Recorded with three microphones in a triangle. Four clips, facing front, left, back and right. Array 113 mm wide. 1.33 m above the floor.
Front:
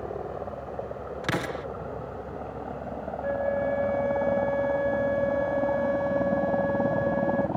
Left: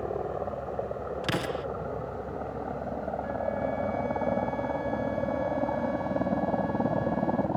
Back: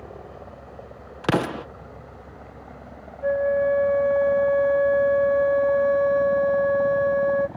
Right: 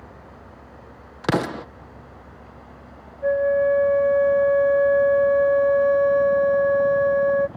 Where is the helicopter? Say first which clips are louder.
Left 13 dB, front 7 dB; 60° left; by 7.6 s 45° left.